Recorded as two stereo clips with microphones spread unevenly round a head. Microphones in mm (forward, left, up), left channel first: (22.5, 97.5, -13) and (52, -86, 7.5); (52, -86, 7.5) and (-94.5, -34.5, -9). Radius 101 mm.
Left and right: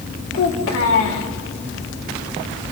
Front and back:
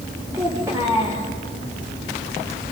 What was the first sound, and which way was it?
A child speaking, 85° left.